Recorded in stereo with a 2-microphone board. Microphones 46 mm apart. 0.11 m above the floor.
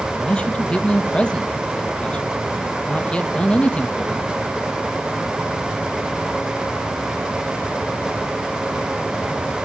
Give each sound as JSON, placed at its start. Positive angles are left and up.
{"t": 0.2, "sound": "a man speaking", "side_deg": 20, "distance_m": 3.0}